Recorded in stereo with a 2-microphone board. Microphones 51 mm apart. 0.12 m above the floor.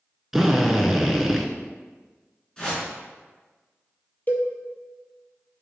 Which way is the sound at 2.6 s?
15° left (ahead or behind).